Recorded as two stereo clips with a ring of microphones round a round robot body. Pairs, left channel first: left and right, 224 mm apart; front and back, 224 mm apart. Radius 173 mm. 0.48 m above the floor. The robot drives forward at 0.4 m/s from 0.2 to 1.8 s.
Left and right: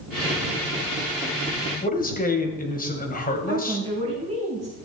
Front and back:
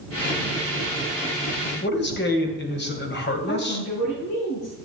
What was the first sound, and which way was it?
A man speaking, 40° left.